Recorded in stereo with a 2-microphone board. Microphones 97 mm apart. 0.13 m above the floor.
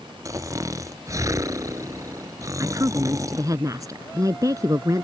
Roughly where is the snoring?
Right.